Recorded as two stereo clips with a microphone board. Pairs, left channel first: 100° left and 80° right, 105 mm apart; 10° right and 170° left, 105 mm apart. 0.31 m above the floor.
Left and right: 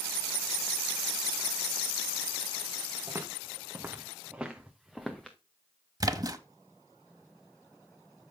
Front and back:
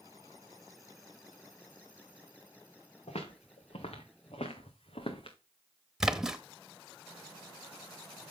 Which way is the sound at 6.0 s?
105° right.